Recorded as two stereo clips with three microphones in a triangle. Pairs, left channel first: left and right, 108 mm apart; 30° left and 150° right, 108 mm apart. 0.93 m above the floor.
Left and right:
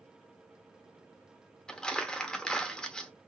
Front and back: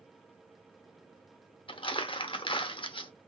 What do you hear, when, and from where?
1.7 s crumpling: 10° left, 0.8 m